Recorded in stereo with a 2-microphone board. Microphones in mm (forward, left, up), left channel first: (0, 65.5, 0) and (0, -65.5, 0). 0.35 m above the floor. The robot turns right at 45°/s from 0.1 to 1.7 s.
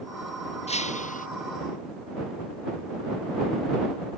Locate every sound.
0.7 s breaking glass: 50° left (ahead or behind); by 1.3 s 80° left